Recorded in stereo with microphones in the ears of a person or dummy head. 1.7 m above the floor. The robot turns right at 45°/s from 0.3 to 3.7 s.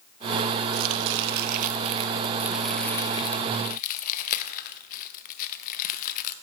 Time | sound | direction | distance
0.7 | chopping | 85° right | 0.8 m